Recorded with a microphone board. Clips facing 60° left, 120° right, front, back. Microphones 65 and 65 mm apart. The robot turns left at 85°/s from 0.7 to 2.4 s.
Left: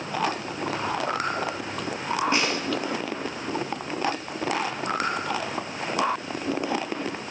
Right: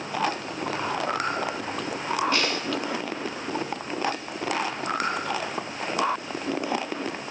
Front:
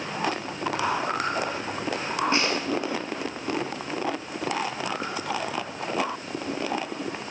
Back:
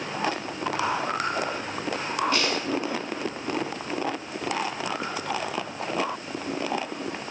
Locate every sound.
2.3 s a snare drum: 15° left, 0.9 m; by 2.6 s 10° left, 0.9 m